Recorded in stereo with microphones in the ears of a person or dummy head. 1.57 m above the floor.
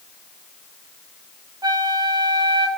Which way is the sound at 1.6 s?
20° right (ahead or behind).